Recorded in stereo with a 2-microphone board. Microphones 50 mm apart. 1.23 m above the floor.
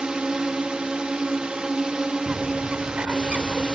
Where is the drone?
20° right (ahead or behind).